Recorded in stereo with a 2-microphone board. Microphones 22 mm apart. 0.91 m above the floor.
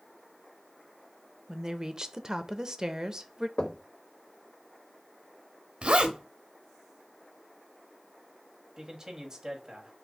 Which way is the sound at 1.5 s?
30° right (ahead or behind).